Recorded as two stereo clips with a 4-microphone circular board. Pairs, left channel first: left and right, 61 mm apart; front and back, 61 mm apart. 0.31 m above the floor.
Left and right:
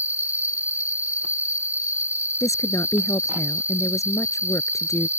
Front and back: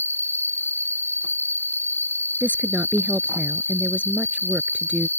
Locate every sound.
0.0 s an insect: 40° right
2.4 s a woman speaking: 115° left